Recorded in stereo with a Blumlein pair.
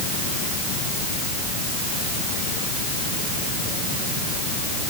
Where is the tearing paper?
I don't hear tearing paper.